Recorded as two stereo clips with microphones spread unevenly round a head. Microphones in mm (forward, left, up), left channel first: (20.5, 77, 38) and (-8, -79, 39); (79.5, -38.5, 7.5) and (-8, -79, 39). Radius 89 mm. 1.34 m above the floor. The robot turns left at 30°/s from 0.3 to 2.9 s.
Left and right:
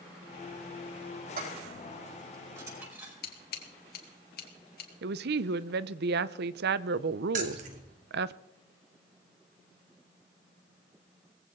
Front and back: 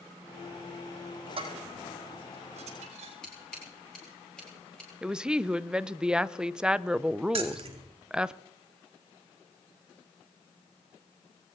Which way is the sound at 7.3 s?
145° right.